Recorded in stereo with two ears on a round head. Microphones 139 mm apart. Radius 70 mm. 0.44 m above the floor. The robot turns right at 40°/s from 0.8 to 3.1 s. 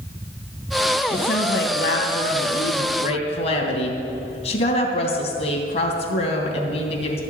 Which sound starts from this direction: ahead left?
A woman speaking, at 1.1 s.